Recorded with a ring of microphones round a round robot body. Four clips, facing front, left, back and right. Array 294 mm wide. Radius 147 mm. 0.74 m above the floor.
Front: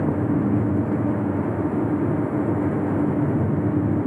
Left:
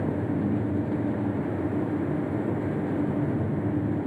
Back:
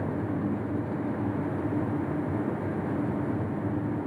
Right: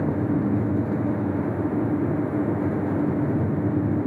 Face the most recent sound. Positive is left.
No sound to turn to.